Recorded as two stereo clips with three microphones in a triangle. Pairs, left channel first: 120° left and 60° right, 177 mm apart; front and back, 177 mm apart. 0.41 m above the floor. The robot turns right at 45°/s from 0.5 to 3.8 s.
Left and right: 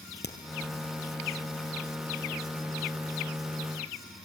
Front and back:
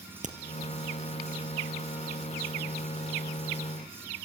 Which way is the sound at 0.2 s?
135° left.